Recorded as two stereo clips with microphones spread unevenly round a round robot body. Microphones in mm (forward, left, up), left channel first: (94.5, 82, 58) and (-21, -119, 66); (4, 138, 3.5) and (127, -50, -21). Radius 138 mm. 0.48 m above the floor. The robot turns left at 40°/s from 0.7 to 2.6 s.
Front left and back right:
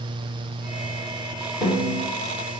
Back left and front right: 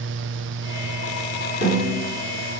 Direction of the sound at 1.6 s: 125° left.